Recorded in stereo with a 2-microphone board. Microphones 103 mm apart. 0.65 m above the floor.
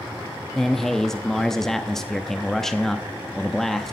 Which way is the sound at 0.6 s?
5° left (ahead or behind).